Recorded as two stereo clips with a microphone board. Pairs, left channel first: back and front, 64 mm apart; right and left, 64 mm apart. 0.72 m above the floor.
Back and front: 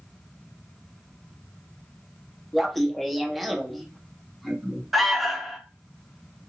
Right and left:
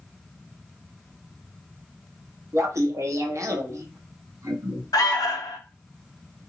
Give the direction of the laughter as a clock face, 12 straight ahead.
9 o'clock.